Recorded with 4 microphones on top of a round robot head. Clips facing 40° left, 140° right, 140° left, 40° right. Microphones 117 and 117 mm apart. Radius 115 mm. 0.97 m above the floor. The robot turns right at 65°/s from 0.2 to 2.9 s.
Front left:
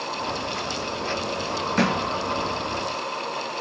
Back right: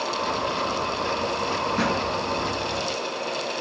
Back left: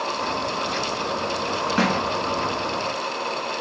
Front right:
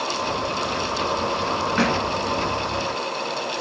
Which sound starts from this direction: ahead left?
A thud, at 1.8 s.